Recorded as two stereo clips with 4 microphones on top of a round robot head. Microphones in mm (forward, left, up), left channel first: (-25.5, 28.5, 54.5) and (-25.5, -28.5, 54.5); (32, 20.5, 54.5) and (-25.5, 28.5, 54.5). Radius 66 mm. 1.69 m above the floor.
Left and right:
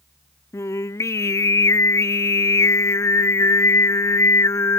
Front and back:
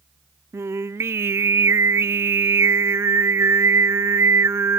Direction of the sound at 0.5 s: 125° left.